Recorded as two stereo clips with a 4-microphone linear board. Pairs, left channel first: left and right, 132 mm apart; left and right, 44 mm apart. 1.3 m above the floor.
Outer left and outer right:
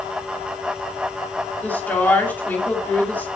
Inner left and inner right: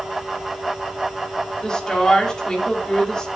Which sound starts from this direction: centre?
A woman speaking, at 1.6 s.